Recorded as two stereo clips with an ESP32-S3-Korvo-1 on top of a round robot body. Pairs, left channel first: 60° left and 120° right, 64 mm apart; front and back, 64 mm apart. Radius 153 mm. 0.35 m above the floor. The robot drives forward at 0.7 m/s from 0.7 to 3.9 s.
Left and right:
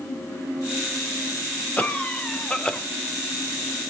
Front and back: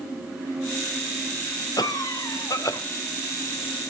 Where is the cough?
10° right, 2.5 m; by 2.8 s 15° right, 1.6 m.